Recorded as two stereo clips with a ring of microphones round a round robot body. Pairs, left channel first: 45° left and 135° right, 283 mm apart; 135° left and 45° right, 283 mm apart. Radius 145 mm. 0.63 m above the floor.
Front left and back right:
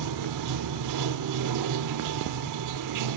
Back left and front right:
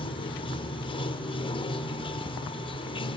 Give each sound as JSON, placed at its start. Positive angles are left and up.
{"t": 0.0, "sound": "running water", "azimuth_deg": -150, "distance_m": 1.0}